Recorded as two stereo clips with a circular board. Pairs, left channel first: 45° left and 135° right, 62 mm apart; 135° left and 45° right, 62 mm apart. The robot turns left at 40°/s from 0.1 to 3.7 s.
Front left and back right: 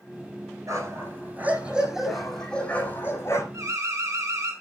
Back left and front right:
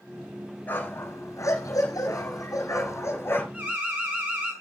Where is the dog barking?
165° right, 7 m; by 3.4 s 80° left, 7 m.